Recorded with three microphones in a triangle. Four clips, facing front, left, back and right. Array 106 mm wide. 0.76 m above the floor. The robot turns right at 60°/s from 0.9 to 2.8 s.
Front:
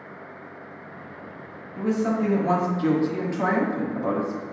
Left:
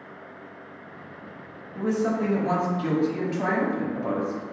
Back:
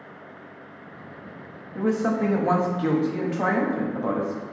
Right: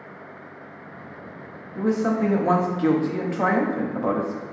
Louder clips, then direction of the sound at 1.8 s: Right 3 dB, back 1 dB; 170° right.